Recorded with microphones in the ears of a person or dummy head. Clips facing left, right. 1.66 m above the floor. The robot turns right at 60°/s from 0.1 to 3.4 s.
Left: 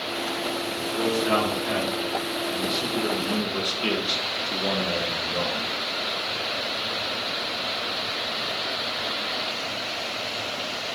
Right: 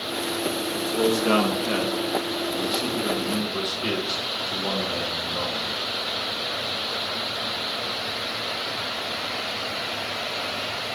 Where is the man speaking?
100° right, 1.5 m; by 5.7 s 55° left, 1.5 m.